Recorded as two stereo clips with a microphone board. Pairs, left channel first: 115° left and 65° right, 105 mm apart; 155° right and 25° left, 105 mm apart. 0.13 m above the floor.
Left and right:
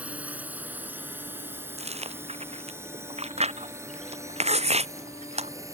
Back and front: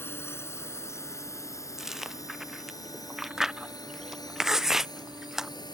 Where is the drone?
125° right; by 5.8 s 120° right.